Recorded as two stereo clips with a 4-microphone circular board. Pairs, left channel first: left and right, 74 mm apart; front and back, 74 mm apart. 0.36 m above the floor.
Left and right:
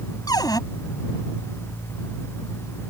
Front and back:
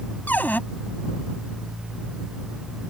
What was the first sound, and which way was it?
A cupboard door, 65° left.